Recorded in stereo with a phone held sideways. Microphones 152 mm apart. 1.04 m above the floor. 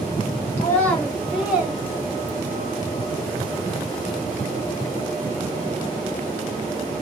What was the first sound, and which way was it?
A child speaking, 15° left (ahead or behind).